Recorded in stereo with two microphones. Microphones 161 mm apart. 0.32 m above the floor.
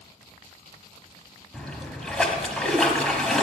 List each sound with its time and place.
1.5 s a splash: 5° left (ahead or behind), 1.2 m